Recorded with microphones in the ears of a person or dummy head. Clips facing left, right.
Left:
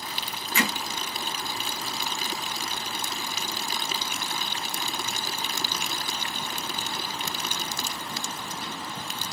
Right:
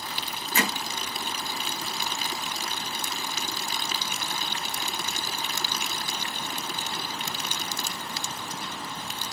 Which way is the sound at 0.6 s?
35° right (ahead or behind).